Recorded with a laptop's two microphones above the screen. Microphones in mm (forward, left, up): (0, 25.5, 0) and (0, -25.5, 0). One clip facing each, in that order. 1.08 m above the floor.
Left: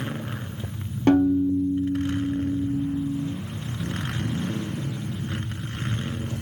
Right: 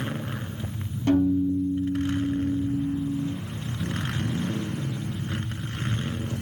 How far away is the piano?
About 0.5 m.